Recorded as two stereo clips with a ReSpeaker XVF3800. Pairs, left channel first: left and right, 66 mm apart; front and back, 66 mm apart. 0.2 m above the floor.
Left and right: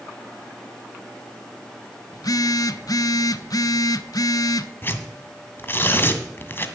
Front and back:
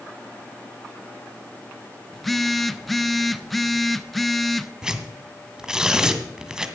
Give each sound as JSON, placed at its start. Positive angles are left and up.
{"t": 2.1, "sound": "a phone buzzing", "azimuth_deg": 90, "distance_m": 0.6}
{"t": 4.8, "sound": "tearing paper", "azimuth_deg": 105, "distance_m": 1.4}